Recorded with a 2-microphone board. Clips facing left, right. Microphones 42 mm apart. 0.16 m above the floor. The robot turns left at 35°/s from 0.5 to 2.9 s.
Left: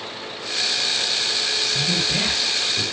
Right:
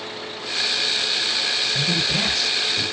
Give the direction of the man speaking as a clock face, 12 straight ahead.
5 o'clock.